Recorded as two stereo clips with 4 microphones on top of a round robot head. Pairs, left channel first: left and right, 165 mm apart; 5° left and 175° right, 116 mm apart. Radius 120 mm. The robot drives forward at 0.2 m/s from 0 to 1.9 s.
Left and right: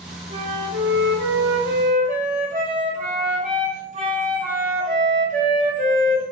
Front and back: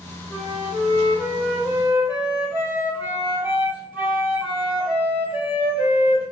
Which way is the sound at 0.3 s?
90° right.